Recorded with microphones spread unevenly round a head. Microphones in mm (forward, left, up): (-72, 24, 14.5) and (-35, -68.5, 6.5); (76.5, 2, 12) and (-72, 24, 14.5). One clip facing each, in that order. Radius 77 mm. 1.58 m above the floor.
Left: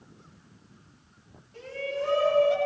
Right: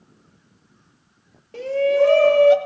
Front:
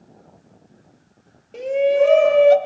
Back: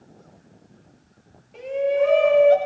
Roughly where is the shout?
Ahead right.